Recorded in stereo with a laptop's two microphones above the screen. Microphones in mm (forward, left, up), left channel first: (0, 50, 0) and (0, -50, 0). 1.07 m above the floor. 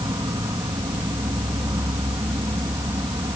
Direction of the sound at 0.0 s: 40° right (ahead or behind).